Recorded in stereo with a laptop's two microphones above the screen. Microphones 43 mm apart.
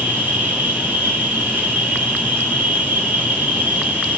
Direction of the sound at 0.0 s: 45° right (ahead or behind).